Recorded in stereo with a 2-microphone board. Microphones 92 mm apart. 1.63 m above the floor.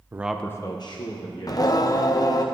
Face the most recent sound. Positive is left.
turn(degrees=45)  # may be behind; listen again after turning